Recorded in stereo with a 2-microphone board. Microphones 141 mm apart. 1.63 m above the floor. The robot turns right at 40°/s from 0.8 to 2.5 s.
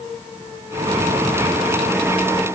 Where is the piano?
I don't hear a piano.